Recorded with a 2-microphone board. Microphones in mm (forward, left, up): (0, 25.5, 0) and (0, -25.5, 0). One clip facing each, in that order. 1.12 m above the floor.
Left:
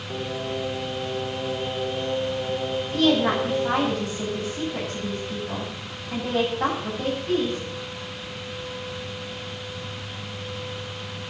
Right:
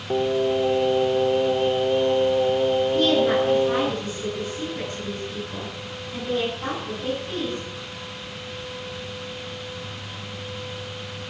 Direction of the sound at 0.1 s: 40° right (ahead or behind).